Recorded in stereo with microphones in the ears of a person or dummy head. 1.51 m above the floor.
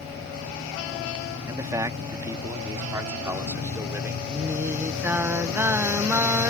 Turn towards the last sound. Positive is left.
turn(degrees=-10)  # may be behind; listen again after turning